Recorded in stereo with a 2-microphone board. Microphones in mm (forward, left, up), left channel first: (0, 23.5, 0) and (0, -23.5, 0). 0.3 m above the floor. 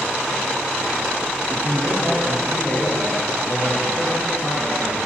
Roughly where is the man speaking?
Left.